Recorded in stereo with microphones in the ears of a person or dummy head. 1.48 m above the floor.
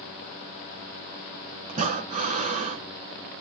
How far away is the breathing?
About 1.0 m.